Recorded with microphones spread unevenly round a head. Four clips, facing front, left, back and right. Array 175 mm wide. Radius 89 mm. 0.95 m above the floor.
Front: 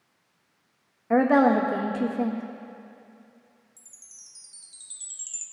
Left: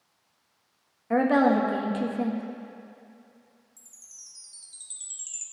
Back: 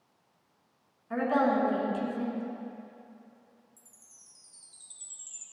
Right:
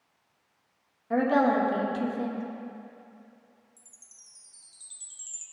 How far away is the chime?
About 1.0 m.